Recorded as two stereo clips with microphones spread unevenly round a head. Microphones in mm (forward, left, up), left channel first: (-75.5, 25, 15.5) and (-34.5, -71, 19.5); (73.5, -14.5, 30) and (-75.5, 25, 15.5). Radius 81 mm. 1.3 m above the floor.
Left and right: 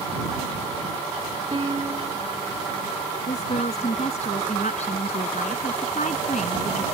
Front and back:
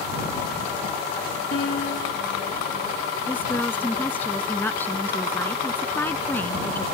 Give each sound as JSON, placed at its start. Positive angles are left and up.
{"t": 1.5, "sound": "a piano", "azimuth_deg": -5}
{"t": 3.3, "sound": "a woman speaking", "azimuth_deg": 65}